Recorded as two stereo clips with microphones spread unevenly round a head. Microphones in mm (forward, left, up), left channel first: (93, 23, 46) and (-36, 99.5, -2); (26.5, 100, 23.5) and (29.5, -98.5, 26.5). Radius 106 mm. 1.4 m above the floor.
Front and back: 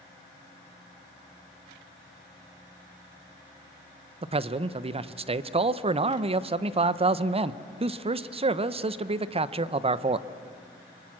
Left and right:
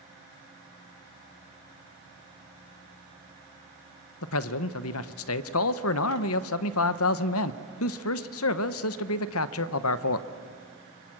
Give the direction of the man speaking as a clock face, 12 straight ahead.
9 o'clock.